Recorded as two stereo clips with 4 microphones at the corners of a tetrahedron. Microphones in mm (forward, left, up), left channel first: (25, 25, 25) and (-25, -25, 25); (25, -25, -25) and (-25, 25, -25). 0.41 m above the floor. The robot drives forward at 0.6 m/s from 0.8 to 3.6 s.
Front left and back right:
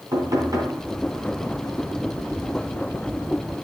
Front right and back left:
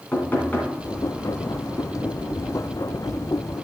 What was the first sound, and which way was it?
Knocking, 110° right.